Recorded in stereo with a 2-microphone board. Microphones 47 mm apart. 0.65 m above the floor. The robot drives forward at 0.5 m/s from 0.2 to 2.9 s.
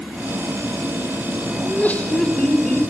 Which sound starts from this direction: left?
Laughter, at 1.6 s.